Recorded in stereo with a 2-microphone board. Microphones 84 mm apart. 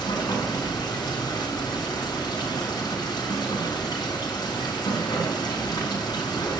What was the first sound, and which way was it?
Running water, 55° left (ahead or behind).